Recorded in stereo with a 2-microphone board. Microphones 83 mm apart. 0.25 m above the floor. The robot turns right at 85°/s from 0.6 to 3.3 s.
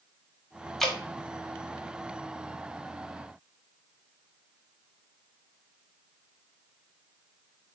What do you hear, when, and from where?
0.8 s dripping: centre (ahead or behind), 0.8 m; by 1.0 s 5° right (ahead or behind), 0.8 m